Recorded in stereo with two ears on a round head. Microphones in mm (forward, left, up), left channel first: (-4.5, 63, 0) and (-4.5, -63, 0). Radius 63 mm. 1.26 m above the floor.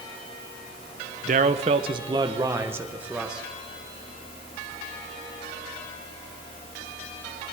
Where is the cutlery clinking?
No cutlery clinking in this recording.